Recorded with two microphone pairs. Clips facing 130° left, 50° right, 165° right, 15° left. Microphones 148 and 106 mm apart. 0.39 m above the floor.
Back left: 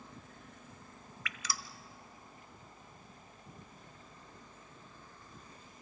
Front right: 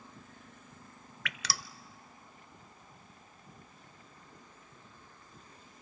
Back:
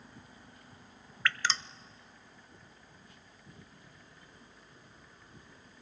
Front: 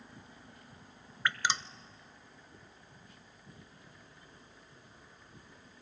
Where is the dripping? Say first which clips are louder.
Front right 3 dB, even; 55° right, 0.5 m.